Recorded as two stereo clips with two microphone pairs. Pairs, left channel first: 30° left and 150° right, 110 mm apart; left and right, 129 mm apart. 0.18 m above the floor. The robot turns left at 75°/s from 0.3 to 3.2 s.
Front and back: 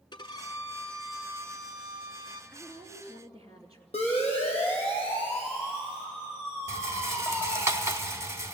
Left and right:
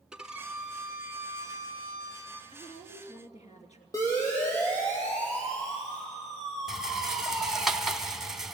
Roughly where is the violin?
Ahead.